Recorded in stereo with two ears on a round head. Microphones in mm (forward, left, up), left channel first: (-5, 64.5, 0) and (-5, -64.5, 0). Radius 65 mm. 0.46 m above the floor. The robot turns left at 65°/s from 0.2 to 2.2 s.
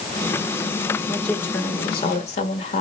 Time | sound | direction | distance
1.1 | a woman speaking | 175° right | 1.6 m